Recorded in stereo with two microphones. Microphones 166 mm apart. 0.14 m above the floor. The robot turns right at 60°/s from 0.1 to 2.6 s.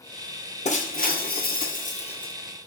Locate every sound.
0.7 s breaking glass: 50° left, 1.1 m; by 2.3 s 150° left, 1.1 m